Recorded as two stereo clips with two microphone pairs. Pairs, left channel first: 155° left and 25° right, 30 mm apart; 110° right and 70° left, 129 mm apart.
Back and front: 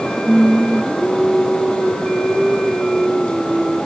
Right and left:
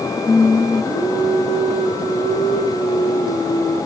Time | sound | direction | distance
0.3 | singing | 135° right | 4 m